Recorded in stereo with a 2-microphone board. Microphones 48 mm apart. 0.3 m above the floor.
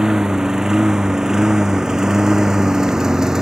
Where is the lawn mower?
10° right (ahead or behind).